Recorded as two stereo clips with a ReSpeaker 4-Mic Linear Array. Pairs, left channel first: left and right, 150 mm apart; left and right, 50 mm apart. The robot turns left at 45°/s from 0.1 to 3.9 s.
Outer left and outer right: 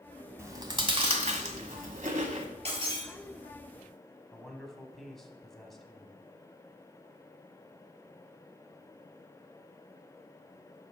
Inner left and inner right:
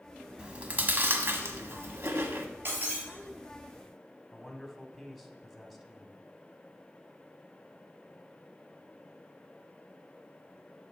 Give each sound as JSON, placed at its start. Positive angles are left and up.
{"t": 0.4, "sound": "chewing", "side_deg": -20, "distance_m": 1.1}
{"t": 2.6, "sound": "breaking glass", "side_deg": -45, "distance_m": 3.5}
{"t": 4.3, "sound": "a man speaking", "side_deg": 0, "distance_m": 1.5}